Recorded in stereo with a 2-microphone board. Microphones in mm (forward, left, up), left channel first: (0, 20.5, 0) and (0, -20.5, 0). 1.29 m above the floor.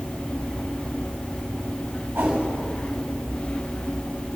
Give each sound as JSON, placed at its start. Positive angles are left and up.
{"t": 2.1, "sound": "a whoosh", "side_deg": -75, "distance_m": 5.5}